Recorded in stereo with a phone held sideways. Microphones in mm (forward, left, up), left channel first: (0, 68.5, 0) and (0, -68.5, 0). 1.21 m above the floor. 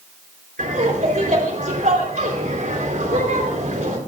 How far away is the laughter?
About 4 m.